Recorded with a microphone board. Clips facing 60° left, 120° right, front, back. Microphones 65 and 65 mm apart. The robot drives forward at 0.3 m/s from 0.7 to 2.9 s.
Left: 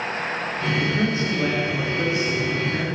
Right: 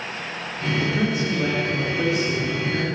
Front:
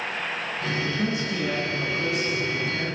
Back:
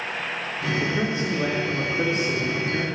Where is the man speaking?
155° left, 4.5 m; by 2.9 s 160° left, 5.5 m.